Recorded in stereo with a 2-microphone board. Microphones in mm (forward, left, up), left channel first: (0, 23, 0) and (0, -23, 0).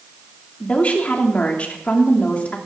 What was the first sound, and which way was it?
A woman speaking, 30° left (ahead or behind).